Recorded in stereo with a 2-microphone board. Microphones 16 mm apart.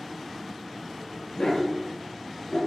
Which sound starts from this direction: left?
A dog barking, at 1.4 s.